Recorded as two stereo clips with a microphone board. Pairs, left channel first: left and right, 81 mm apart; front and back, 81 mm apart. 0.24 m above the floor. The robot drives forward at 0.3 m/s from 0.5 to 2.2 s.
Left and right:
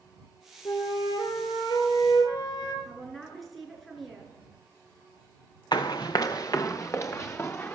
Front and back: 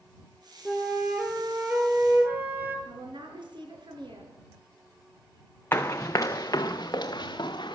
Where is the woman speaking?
Straight behind, 4 m.